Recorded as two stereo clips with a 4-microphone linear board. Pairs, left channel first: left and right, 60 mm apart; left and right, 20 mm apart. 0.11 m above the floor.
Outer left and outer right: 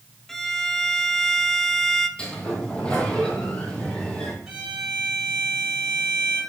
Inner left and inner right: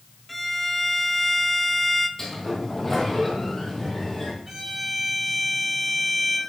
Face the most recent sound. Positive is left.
turn(degrees=-10)  # may be behind; listen again after turning